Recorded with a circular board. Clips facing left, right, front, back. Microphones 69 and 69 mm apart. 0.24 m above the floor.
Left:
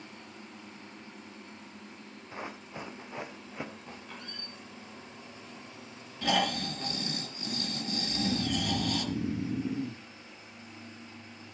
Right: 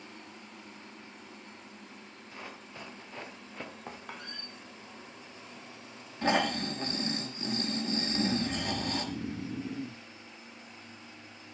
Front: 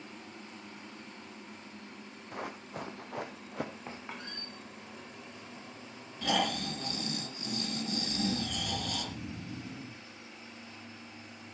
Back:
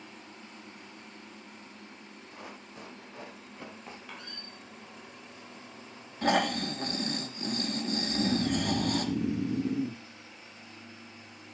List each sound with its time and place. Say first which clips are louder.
2.3 s running footsteps: left 5 dB, front 7 dB; 25° left, 3 m; by 3.7 s 10° left, 2.5 m
3.9 s a squeak: right 2 dB, front 2 dB; 60° right, 4 m
6.2 s snoring: right 1 dB, back 4 dB; 140° right, 2.5 m
8.1 s snoring: left 1 dB, back 8 dB; 175° left, 0.6 m